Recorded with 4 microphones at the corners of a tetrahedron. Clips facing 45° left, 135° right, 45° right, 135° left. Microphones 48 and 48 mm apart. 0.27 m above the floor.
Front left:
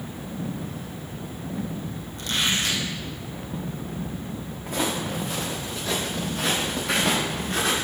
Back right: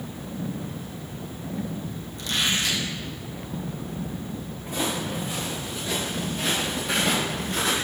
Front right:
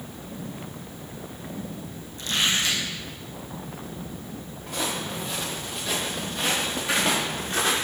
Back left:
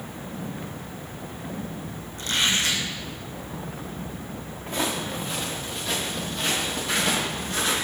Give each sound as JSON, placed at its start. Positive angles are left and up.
{"t": 2.2, "sound": "a squeak", "azimuth_deg": 90, "distance_m": 2.0}
{"t": 4.7, "sound": "footsteps", "azimuth_deg": 75, "distance_m": 1.9}